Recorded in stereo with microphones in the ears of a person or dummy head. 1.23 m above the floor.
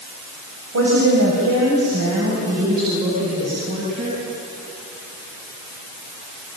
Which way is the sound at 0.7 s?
80° right.